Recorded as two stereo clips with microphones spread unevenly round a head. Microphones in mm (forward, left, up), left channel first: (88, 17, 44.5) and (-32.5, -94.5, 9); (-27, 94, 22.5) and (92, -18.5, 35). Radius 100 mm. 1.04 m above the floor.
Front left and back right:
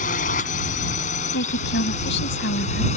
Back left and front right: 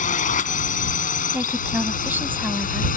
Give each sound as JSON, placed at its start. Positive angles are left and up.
{"t": 0.0, "sound": "a drone", "azimuth_deg": 95}
{"t": 1.3, "sound": "a woman speaking", "azimuth_deg": 35}